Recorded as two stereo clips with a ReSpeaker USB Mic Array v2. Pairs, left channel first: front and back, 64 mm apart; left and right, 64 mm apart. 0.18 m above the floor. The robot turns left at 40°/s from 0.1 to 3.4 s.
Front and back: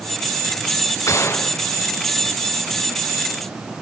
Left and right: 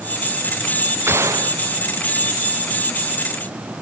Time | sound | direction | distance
1.1 | a gunshot | 35° right | ?